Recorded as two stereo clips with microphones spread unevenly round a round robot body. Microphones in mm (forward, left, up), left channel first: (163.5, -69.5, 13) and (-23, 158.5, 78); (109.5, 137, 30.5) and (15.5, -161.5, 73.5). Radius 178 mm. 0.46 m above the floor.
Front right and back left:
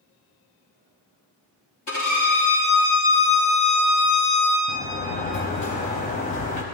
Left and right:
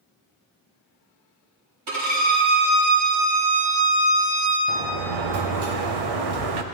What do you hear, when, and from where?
1.9 s a violin: 110° right, 3.5 m
4.7 s a sliding door: 120° right, 0.7 m